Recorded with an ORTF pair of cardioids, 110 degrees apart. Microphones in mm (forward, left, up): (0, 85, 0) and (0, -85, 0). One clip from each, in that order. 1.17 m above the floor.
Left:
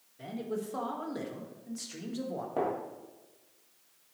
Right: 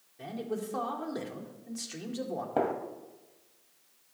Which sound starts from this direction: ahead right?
A gunshot, at 2.6 s.